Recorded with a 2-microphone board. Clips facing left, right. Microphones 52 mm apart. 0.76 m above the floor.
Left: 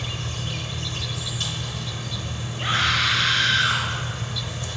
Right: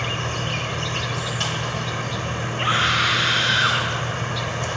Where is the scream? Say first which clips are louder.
Right 2 dB; 35° right (ahead or behind), 4 m.